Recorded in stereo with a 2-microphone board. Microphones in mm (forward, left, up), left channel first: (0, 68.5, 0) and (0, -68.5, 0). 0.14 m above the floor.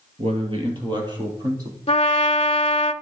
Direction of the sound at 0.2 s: 45° right (ahead or behind).